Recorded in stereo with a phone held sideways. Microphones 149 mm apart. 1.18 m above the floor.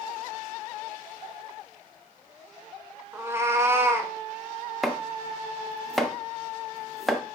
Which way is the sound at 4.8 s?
Centre (ahead or behind).